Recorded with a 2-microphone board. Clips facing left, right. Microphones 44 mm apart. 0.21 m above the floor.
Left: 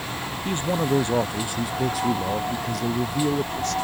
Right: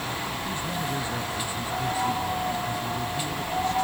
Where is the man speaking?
65° left (ahead or behind); by 3.7 s 70° left (ahead or behind).